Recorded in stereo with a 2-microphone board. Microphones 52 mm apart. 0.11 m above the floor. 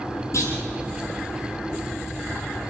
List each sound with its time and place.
0.3 s a clunk: 70° left (ahead or behind), 4.5 m